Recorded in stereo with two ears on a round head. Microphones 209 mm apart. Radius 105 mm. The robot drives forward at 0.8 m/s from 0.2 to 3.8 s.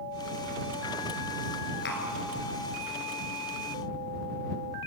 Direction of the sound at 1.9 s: 50° left (ahead or behind).